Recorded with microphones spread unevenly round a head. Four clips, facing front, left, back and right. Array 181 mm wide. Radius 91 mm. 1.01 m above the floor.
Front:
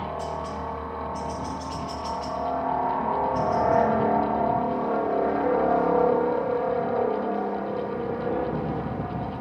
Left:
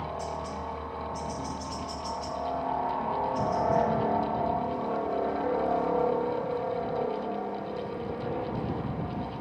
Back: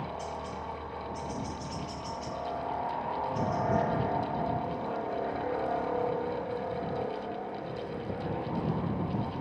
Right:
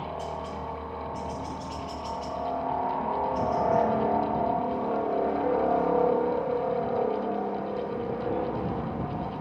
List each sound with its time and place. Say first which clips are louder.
0.0 s a helicopter: even, front 7 dB; 5° right; by 9.4 s 25° right